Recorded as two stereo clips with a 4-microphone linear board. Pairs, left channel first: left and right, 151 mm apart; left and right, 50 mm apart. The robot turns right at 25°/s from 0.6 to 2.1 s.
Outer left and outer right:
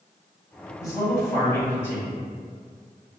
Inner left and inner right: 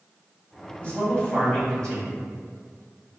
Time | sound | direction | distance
0.8 | a man speaking | 20° left (ahead or behind) | 1.1 m